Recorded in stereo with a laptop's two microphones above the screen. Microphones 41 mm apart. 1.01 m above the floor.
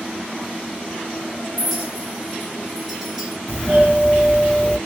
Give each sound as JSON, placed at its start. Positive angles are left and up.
{"t": 1.6, "sound": "a clink", "side_deg": -10, "distance_m": 1.5}
{"t": 3.5, "sound": "a doorbell", "side_deg": 35, "distance_m": 1.8}